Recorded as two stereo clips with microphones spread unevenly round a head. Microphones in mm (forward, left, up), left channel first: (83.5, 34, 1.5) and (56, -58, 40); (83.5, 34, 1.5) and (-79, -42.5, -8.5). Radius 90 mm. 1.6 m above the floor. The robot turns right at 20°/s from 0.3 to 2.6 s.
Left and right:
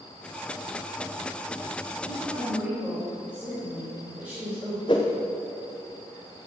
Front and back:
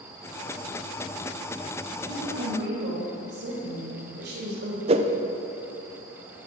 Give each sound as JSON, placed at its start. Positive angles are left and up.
{"t": 2.0, "sound": "a woman speaking", "azimuth_deg": 160, "distance_m": 4.0}
{"t": 4.9, "sound": "a whoosh", "azimuth_deg": 145, "distance_m": 0.7}